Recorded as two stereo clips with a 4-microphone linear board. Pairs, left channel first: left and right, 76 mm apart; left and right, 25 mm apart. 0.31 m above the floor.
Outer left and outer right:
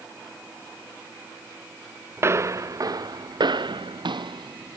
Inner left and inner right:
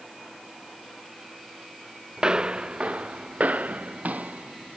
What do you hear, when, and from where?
2.2 s footsteps: 35° right (ahead or behind); by 4.8 s 70° right (ahead or behind)